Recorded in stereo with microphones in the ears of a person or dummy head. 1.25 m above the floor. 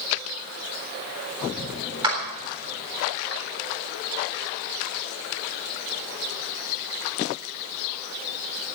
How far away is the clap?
About 3.5 m.